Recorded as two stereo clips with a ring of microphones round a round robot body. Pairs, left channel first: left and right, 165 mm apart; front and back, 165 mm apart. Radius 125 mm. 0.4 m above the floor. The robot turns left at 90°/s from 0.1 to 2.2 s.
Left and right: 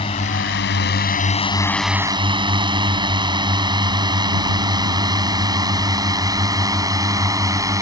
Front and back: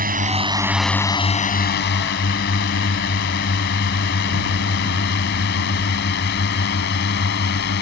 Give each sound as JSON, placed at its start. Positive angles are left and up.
{"t": 0.0, "sound": "a drone", "azimuth_deg": 155}